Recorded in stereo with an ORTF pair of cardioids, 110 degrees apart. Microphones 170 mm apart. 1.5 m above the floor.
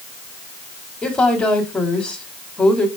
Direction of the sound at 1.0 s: 5° left.